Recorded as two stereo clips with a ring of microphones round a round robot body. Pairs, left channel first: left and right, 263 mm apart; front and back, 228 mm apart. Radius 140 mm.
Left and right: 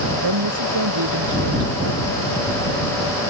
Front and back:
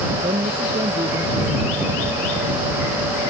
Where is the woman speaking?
110° right.